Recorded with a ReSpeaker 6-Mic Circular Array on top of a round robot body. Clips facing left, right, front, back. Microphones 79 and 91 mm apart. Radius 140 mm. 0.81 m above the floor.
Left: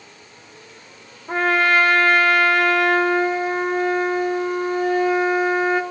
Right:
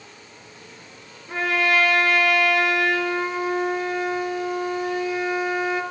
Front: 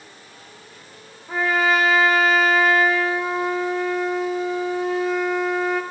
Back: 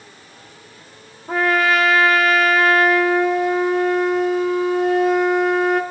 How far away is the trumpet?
About 0.5 m.